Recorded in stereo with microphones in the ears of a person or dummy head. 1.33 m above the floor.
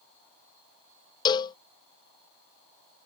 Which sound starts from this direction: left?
A cowbell, at 1.2 s.